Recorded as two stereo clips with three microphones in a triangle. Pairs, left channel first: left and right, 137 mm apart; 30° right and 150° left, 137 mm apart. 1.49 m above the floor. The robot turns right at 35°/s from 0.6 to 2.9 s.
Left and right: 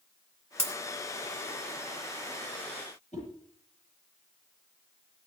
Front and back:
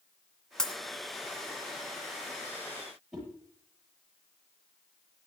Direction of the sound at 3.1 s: 60° left.